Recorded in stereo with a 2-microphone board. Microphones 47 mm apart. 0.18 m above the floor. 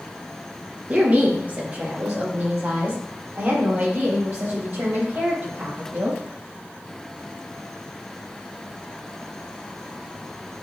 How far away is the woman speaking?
About 2 m.